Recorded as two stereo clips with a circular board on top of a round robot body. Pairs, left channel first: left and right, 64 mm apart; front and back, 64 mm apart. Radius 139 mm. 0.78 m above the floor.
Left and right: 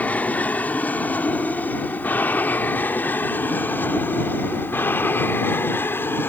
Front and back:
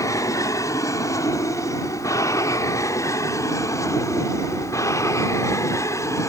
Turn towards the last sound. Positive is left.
turn(degrees=35)